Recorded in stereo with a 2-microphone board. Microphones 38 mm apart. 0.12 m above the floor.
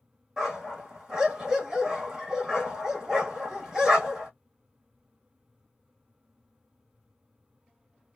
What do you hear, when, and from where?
0.4 s a dog barking: 15° right (ahead or behind), 2.0 m